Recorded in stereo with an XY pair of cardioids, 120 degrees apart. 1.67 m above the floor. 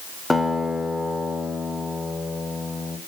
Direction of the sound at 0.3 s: 15° left.